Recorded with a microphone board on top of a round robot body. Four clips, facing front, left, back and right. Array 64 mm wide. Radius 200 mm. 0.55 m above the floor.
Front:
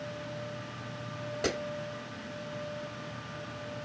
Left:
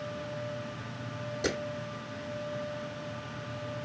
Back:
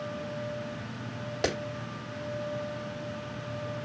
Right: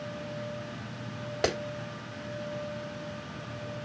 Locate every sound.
1.4 s a clap: 110° right, 3.5 m